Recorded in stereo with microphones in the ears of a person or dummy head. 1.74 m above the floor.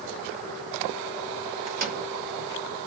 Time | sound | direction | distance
1.7 | a microwave | 45° right (ahead or behind) | 1.4 m